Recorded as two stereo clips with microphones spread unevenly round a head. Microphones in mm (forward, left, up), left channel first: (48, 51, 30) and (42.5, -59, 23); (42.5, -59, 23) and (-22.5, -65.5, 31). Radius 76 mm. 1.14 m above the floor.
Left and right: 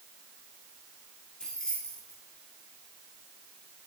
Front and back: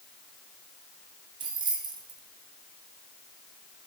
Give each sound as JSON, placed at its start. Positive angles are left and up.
{"t": 1.4, "sound": "keys jangling", "azimuth_deg": 170, "distance_m": 1.3}